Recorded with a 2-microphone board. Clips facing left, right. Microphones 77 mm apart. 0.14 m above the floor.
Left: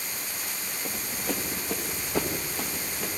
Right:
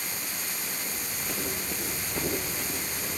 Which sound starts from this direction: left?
Running footsteps, at 0.8 s.